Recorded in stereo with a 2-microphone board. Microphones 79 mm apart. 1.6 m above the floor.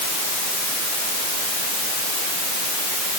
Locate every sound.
Only background noise.